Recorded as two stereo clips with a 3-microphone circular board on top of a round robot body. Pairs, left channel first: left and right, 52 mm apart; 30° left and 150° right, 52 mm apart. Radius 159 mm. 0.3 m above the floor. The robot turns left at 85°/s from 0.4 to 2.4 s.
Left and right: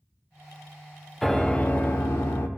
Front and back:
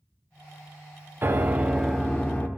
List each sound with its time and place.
1.2 s a piano: straight behind, 0.8 m; by 2.5 s 80° left, 0.8 m